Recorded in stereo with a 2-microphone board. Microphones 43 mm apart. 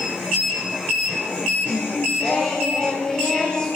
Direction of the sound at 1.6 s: 25° left (ahead or behind).